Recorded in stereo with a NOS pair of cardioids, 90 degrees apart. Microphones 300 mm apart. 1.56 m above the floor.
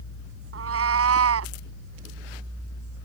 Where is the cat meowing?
50° right; by 1.5 s 55° right.